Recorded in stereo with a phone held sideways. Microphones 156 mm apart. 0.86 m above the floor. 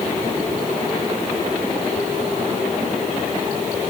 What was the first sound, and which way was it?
Only background noise.